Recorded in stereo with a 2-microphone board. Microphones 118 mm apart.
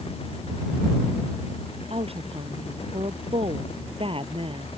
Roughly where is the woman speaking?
Right.